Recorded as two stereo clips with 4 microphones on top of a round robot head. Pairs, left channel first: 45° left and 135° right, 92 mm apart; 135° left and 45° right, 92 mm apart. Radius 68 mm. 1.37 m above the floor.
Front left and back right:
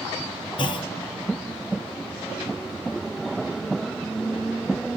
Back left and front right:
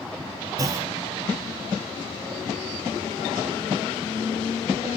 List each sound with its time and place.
0.6 s a clunk: 10° left, 0.6 m